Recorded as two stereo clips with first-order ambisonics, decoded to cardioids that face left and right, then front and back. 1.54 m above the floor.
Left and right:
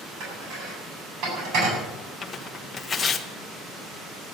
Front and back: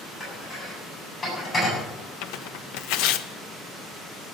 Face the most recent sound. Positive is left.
turn(degrees=15)